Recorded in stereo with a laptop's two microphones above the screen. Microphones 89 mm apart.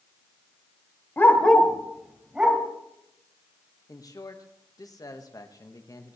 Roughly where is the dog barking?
Left.